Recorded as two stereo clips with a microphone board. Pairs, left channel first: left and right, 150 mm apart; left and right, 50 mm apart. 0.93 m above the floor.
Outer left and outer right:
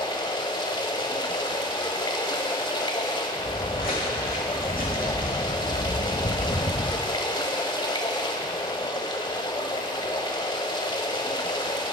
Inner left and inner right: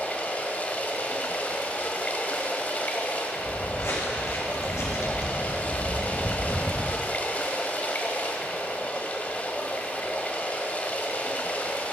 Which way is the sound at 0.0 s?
30° left (ahead or behind).